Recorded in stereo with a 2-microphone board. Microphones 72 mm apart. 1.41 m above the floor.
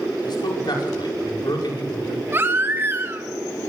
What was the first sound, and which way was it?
A man speaking, 85° left.